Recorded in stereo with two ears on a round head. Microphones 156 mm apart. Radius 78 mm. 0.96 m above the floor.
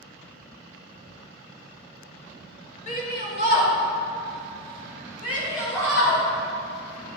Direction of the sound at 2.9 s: 40° left (ahead or behind).